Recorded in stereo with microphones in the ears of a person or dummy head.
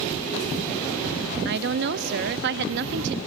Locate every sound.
1.4 s a woman speaking: 60° right (ahead or behind), 0.6 m